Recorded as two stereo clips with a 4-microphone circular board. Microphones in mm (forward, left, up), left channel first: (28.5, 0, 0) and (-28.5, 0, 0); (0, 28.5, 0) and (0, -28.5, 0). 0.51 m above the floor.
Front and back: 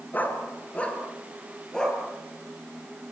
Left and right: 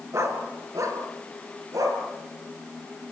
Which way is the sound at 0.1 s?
55° right.